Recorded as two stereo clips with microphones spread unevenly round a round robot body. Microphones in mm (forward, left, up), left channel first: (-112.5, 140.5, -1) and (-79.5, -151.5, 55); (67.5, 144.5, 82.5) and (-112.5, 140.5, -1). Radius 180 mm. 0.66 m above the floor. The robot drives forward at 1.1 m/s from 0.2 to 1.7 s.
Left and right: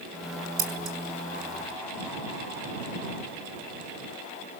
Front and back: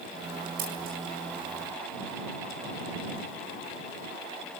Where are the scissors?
130° right, 6 m.